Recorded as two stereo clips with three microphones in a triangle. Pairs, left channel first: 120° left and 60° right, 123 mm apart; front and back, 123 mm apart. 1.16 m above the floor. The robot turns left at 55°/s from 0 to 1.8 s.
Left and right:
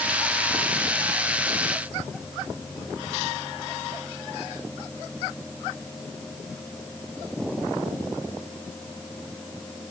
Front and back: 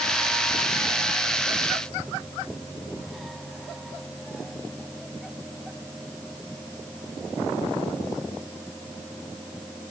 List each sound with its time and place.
Only background noise.